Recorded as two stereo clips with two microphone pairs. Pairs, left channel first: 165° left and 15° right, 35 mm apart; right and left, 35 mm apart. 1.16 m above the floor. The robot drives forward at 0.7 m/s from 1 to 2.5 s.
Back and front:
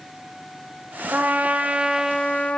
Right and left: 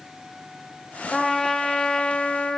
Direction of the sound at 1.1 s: 15° right.